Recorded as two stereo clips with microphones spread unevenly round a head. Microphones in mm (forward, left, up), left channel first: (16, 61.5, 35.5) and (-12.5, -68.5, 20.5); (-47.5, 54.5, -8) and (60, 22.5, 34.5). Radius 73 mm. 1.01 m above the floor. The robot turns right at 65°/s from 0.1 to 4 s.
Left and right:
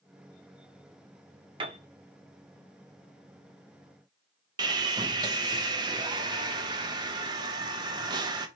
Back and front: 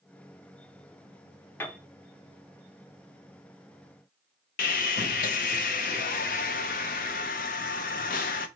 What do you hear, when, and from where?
1.6 s a piano: 145° right, 0.9 m; by 1.8 s 130° right, 0.9 m
4.6 s sawing: 165° right, 0.6 m